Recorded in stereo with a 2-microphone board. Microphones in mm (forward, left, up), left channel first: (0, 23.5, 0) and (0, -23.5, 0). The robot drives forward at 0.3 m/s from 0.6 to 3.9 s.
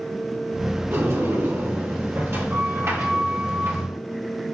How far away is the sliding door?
About 2 m.